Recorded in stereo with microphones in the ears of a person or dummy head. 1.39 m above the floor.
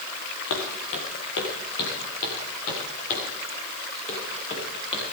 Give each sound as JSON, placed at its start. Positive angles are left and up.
{"t": 0.5, "sound": "footsteps", "side_deg": 65, "distance_m": 4.5}